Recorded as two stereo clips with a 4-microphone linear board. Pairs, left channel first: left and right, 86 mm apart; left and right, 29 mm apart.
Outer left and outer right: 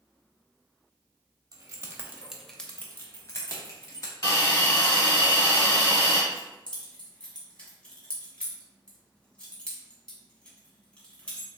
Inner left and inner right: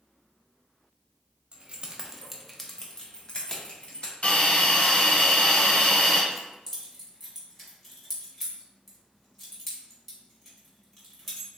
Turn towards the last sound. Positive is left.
turn(degrees=15)  # may be behind; listen again after turning